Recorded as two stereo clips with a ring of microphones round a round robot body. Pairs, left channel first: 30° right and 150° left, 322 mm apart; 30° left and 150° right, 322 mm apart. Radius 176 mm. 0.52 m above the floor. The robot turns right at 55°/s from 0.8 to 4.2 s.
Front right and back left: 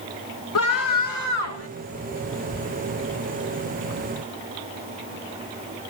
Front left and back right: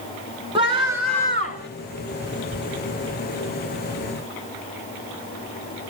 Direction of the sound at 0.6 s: 75° right.